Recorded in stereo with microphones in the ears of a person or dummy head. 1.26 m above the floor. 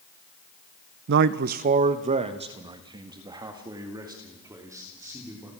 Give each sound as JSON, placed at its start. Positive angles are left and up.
{"t": 1.1, "sound": "a man speaking", "side_deg": -60, "distance_m": 0.6}